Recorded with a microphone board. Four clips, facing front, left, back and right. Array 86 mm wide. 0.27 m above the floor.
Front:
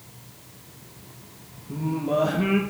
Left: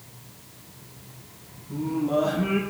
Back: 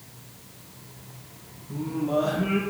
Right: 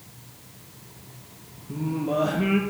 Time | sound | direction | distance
1.7 | singing | 50° right | 4.5 m